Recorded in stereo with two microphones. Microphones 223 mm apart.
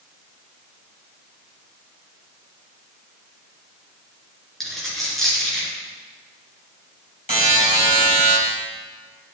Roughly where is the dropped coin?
Centre.